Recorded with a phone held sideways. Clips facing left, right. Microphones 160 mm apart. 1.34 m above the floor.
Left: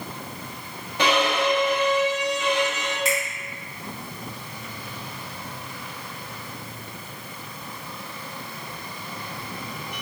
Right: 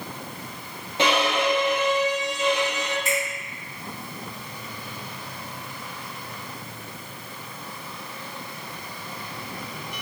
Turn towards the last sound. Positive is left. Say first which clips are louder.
# left 3 dB
turn(degrees=80)